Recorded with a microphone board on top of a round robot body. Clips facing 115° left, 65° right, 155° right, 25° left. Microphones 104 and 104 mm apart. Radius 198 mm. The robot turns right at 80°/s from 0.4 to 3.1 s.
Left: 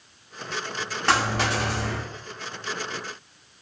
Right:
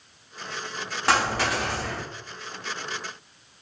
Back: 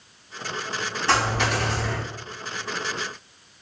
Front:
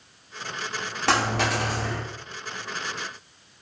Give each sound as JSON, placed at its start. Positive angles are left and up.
{"t": 1.1, "sound": "a dropped coin", "azimuth_deg": 15, "distance_m": 0.6}